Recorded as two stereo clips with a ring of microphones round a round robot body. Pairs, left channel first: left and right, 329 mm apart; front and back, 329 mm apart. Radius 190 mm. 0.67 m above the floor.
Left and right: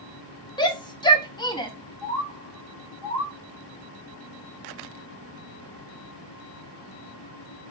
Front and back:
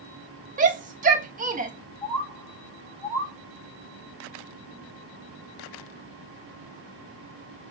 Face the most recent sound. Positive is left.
turn(degrees=80)